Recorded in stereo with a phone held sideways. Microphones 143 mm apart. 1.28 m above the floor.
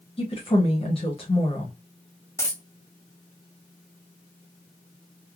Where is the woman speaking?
40° left (ahead or behind), 0.9 m.